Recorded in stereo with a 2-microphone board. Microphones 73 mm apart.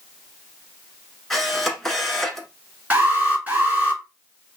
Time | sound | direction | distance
1.3 | a camera shutter | 5° left (ahead or behind) | 1.0 m
2.9 | an alarm | 25° right (ahead or behind) | 2.5 m